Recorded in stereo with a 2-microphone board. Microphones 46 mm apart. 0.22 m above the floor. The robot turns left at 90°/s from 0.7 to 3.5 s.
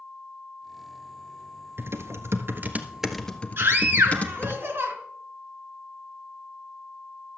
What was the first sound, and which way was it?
Typing on a keyboard, 60° right.